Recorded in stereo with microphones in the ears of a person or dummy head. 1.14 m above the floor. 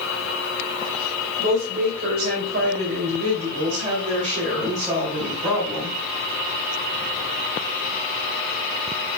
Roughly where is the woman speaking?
Right.